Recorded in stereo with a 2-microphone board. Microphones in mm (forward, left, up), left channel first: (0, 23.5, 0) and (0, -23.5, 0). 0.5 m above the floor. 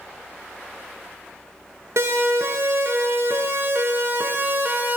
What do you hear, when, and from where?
2.0 s a siren: 65° right (ahead or behind), 6.5 m; by 5.0 s 40° right (ahead or behind), 4.5 m